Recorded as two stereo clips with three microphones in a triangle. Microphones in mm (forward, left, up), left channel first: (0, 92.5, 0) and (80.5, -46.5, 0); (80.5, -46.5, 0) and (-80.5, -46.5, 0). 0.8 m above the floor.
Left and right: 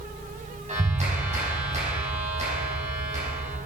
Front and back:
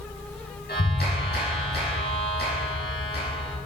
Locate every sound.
0.7 s a clap: 15° right, 5 m